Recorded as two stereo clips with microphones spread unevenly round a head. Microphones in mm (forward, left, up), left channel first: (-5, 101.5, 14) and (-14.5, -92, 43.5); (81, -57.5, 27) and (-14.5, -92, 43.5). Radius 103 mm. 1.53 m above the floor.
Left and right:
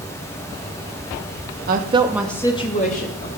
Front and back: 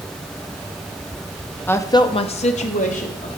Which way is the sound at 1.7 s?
55° right.